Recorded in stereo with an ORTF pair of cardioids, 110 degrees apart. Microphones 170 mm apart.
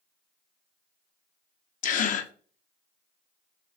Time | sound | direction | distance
1.8 | a gasp | 55° left | 0.6 m